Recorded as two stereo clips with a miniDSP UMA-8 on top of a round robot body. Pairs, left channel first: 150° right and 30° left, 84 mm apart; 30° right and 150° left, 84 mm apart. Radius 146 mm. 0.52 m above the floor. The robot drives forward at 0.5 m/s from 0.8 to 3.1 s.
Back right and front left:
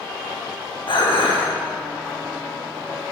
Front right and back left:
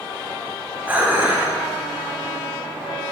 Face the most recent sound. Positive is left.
turn(degrees=-160)